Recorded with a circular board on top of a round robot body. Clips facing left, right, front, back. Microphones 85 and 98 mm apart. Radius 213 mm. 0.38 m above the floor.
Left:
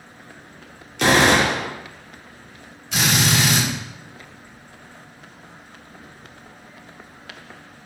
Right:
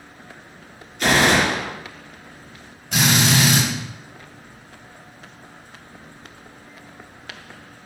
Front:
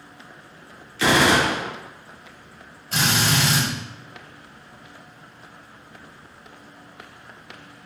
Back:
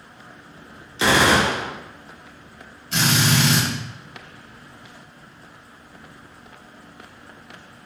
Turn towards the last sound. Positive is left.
turn(degrees=-45)